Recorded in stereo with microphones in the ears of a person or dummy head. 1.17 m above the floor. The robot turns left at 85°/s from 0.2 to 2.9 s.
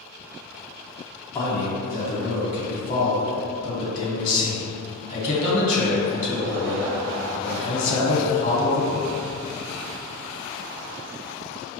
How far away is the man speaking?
About 1.6 m.